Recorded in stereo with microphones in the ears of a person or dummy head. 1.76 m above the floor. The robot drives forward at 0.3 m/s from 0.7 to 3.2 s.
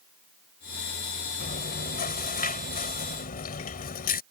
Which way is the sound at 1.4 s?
40° left (ahead or behind).